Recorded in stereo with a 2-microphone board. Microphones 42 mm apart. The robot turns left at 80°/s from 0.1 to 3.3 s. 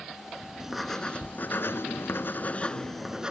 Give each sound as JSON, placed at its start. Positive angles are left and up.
{"t": 0.6, "sound": "writing", "azimuth_deg": -165}